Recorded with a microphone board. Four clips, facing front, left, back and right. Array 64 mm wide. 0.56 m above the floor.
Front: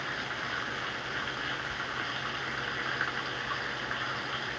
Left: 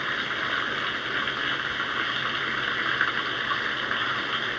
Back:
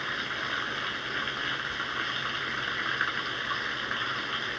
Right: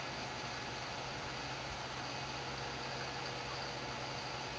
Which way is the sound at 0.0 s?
100° left.